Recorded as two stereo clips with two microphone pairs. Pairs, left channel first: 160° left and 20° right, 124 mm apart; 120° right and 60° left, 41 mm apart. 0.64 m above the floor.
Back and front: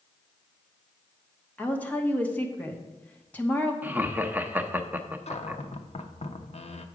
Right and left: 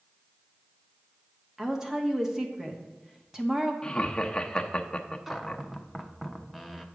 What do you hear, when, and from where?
1.6 s a woman speaking: 105° left, 1.1 m
3.8 s laughter: 75° right, 0.7 m
5.3 s a cupboard door: 150° left, 0.7 m